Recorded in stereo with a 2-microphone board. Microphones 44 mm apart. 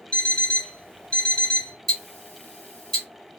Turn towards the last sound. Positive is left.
turn(degrees=5)  # may be behind; listen again after turning